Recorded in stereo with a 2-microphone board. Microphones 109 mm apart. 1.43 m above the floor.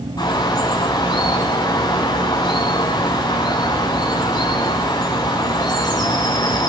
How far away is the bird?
About 7 m.